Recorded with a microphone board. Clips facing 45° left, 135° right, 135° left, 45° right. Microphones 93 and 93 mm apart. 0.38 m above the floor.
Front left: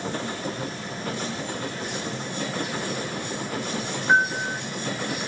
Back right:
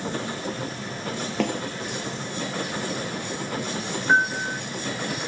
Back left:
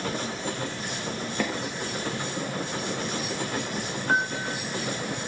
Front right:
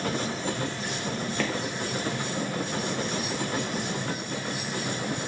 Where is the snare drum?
150° right.